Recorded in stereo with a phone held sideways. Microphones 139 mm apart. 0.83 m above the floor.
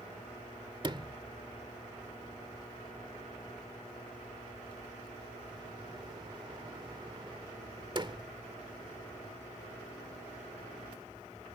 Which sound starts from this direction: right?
A sliding door, at 0.8 s.